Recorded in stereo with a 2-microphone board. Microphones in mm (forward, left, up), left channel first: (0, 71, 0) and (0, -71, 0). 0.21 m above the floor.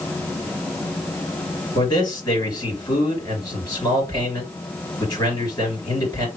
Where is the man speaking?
25° left (ahead or behind), 3.5 m.